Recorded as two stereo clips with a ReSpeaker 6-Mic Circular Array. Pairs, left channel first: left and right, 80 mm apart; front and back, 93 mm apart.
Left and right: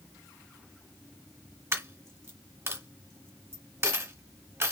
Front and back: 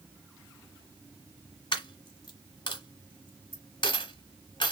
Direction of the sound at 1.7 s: 30° right.